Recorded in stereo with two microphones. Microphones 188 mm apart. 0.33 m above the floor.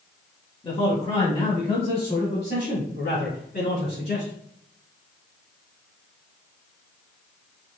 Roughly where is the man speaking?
Left.